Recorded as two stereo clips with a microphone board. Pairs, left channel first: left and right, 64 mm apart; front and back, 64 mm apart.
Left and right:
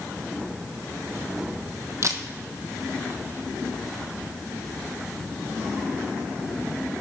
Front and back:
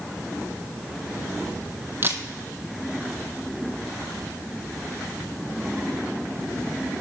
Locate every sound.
2.0 s a camera shutter: 125° right, 0.8 m